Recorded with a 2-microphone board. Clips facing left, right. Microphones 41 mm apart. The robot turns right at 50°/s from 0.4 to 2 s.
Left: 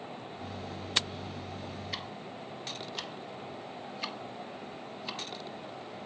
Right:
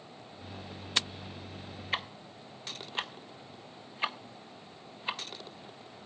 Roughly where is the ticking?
Right.